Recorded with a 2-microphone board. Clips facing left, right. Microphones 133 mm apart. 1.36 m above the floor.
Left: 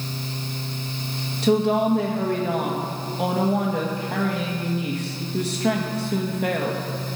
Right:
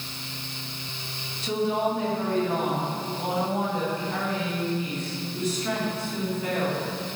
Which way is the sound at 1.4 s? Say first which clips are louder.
Left 6 dB; 75° left (ahead or behind).